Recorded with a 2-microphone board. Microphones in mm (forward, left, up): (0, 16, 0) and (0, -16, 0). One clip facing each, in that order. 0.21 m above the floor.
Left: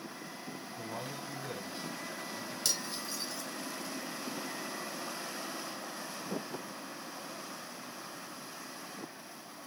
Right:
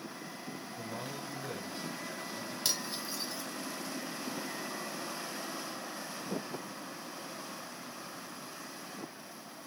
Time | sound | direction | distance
0.7 | a man speaking | 40° left (ahead or behind) | 1.9 m
2.6 | cutlery clinking | 15° right (ahead or behind) | 0.9 m